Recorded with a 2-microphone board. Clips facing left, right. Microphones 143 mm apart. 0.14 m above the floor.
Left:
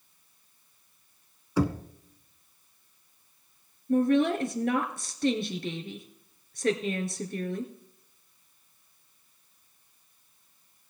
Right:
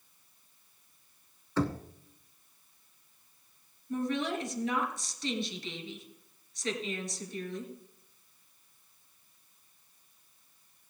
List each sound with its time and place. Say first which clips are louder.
1.6 s knocking: left 4 dB; 10° left (ahead or behind), 0.8 m
3.9 s a woman speaking: left 9 dB; 55° left (ahead or behind), 2.0 m